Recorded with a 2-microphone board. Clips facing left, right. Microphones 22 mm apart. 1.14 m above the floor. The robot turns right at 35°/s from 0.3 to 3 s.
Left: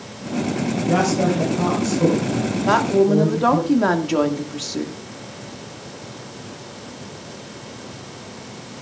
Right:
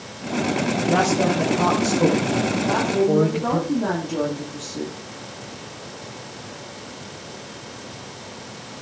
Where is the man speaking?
165° left, 4.5 m; by 3.7 s 120° right, 4.5 m.